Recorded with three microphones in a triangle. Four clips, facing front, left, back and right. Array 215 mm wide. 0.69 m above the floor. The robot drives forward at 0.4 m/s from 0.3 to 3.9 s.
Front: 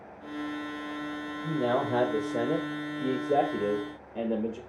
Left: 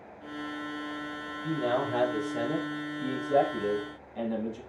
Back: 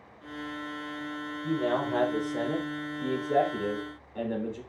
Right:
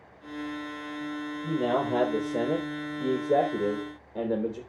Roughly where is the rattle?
No rattle in this recording.